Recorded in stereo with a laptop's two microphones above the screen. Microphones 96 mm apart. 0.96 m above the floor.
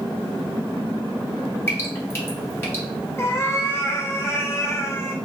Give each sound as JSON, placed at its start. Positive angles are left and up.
{"t": 1.7, "sound": "dripping", "side_deg": 25, "distance_m": 1.1}
{"t": 3.2, "sound": "a cat meowing", "side_deg": 25, "distance_m": 0.6}